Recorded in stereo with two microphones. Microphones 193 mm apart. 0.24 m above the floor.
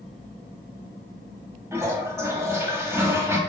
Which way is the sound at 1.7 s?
15° right (ahead or behind).